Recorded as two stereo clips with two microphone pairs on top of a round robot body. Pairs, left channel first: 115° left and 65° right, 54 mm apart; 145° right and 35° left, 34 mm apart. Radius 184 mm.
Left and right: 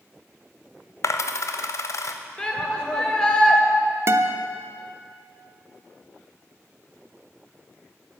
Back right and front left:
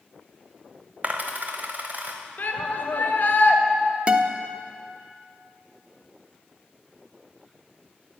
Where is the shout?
175° right, 2 m.